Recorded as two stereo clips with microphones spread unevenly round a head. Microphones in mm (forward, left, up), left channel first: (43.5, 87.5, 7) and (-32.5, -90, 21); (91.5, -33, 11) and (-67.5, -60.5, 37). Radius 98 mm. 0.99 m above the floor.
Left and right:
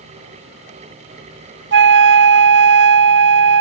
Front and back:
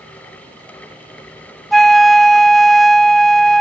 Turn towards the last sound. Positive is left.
turn(degrees=-80)